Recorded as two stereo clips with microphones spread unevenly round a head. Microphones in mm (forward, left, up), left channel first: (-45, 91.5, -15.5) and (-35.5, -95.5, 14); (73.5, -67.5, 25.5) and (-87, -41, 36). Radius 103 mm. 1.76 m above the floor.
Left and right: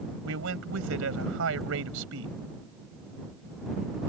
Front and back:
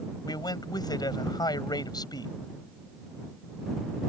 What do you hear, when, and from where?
0.2 s a man speaking: 75° right